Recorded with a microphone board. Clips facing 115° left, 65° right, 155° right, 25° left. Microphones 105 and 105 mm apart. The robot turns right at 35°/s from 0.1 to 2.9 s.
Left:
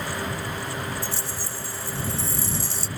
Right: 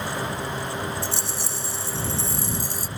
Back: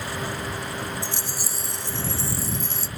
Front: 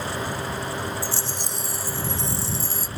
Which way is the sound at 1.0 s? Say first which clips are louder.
Right 2 dB, front 2 dB; 90° right.